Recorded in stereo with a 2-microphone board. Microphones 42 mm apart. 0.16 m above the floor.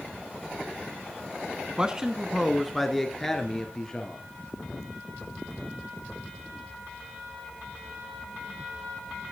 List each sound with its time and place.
1.8 s a man speaking: 20° right (ahead or behind), 1.2 m; by 4.2 s 15° left (ahead or behind), 3 m